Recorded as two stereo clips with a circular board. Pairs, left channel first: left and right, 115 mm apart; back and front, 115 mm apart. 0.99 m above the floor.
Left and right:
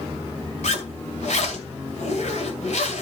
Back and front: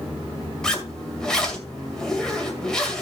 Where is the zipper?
95° left, 2 m.